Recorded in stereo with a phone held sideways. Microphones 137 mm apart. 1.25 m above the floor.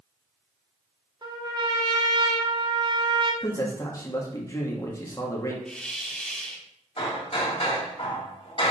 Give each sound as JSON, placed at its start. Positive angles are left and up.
{"t": 1.2, "sound": "a trumpet", "side_deg": -35, "distance_m": 1.0}
{"t": 3.4, "sound": "a man speaking", "side_deg": 25, "distance_m": 1.6}
{"t": 5.7, "sound": "a hiss", "side_deg": 5, "distance_m": 1.0}
{"t": 7.0, "sound": "hammering", "side_deg": 45, "distance_m": 2.5}